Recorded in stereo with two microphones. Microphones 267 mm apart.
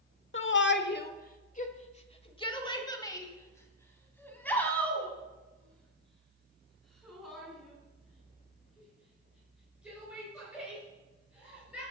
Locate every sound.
0.3 s a shout: 45° left (ahead or behind), 1.0 m; by 11.8 s 5° right (ahead or behind), 6.5 m